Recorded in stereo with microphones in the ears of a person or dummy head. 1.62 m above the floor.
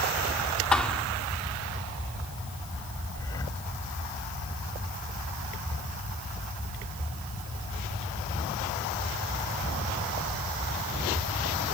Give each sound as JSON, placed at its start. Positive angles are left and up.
{"t": 0.7, "sound": "a thud", "side_deg": 0}
{"t": 3.1, "sound": "breathing", "side_deg": 15}